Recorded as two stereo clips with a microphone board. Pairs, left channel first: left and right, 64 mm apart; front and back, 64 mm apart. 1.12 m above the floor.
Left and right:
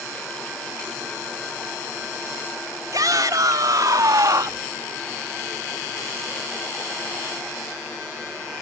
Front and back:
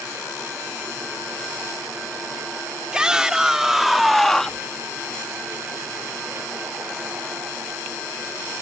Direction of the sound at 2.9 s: 105° right.